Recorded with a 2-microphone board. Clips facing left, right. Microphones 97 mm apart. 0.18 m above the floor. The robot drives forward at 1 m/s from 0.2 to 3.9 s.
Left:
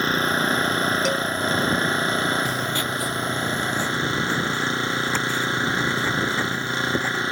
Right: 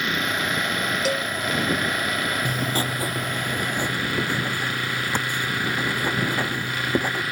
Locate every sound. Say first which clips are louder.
0.0 s an engine running: left 4 dB; 35° left (ahead or behind); by 7.3 s 25° left (ahead or behind)
1.1 s a cowbell: left 1 dB; 5° right (ahead or behind); by 1.3 s centre (ahead or behind)
2.5 s writing: even; 60° right (ahead or behind); by 7.2 s 15° right (ahead or behind)